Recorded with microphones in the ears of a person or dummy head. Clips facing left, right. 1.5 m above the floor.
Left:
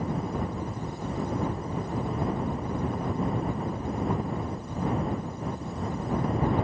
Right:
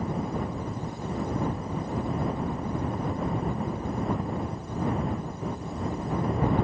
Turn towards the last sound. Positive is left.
No sound to turn to.